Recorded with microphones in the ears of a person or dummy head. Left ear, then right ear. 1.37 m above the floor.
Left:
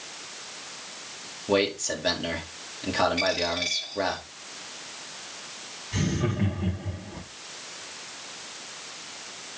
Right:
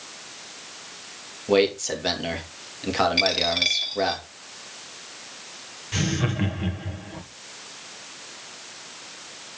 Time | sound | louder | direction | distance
1.5 | a man speaking | right 4 dB | 15° right (ahead or behind) | 2.5 m
3.2 | a dropped coin | right 5 dB | 45° right (ahead or behind) | 1.4 m
5.9 | laughter | right 3 dB | 55° right (ahead or behind) | 1.9 m